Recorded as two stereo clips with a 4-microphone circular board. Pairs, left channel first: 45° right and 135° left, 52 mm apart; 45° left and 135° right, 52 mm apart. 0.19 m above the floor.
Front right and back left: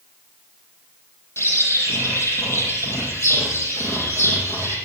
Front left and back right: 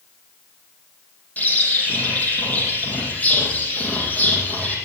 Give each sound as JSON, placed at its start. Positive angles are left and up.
{"t": 1.4, "sound": "a bird", "azimuth_deg": -15, "distance_m": 5.0}